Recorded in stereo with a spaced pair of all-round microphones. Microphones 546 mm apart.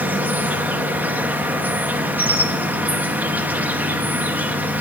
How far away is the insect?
About 0.9 m.